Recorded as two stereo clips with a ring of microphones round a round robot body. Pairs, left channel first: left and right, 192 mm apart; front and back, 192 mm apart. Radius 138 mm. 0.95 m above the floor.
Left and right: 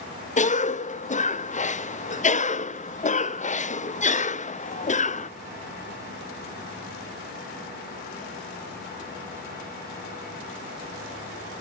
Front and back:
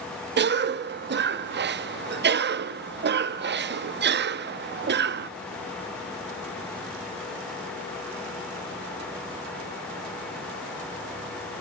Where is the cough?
145° left, 0.8 m.